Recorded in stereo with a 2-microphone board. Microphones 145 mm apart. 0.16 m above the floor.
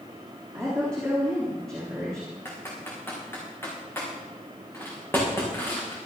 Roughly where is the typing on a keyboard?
Centre.